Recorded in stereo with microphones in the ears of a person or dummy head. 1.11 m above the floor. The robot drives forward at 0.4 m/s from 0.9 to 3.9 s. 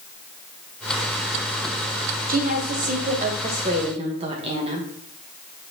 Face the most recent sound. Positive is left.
turn(degrees=-30)  # may be behind; listen again after turning